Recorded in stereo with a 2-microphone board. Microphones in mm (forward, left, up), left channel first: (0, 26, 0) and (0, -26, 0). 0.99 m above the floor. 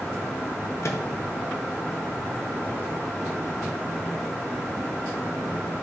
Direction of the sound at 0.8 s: 65° left (ahead or behind).